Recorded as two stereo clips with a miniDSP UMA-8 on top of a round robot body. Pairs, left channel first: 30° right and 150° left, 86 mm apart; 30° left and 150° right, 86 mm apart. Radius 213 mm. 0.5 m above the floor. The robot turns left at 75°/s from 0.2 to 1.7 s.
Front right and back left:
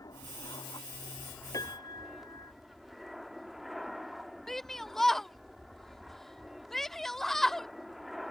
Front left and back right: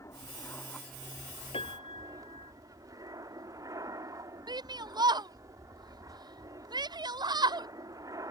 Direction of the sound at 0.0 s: 10° right.